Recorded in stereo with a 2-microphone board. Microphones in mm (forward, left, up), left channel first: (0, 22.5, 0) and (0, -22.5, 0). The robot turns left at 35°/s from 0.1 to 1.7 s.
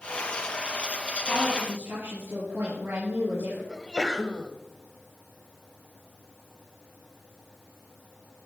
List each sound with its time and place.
1.3 s a woman speaking: 75° right (ahead or behind), 4.5 m; by 3.6 s 65° right (ahead or behind), 4.5 m
3.7 s a sneeze: 15° left (ahead or behind), 0.9 m